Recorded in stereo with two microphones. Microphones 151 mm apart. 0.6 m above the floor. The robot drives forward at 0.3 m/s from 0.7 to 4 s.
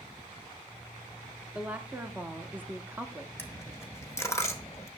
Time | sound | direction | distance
1.5 | a woman speaking | 10° right (ahead or behind) | 1.1 m
3.4 | a dropped coin | 15° left (ahead or behind) | 1.1 m